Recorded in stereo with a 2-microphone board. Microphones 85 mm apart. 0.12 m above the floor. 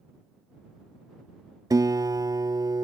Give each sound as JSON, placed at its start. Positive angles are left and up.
{"t": 1.7, "sound": "a guitar", "side_deg": -50}